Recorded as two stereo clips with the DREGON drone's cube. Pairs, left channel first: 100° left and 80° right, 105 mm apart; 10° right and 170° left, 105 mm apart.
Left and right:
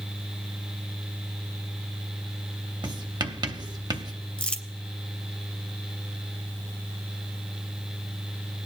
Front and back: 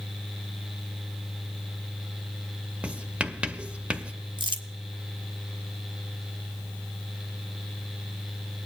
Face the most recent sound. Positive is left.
turn(degrees=170)